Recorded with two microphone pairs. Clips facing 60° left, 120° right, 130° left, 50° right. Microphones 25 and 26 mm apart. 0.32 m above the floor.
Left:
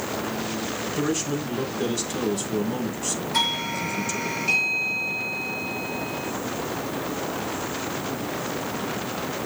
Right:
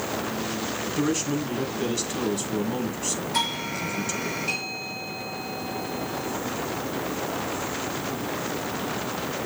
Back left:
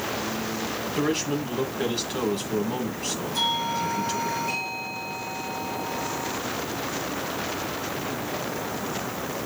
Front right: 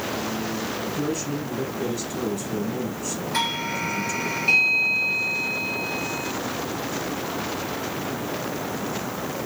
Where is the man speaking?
155° left, 2.5 m.